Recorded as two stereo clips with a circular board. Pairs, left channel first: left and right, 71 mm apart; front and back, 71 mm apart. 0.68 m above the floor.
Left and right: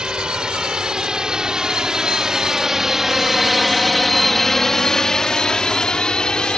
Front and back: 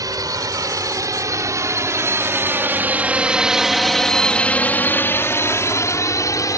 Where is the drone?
165° right; by 6.6 s 15° left.